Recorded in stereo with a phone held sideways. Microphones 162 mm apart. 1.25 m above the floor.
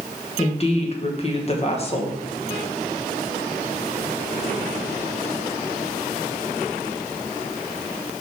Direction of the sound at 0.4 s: 40° left (ahead or behind).